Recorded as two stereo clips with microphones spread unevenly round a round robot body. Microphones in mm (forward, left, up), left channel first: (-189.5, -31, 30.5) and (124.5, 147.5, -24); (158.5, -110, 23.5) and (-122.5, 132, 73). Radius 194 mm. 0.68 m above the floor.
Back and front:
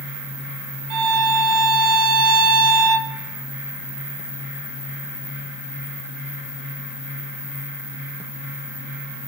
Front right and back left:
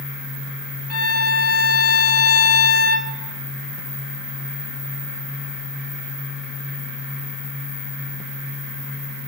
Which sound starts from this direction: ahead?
A violin, at 0.9 s.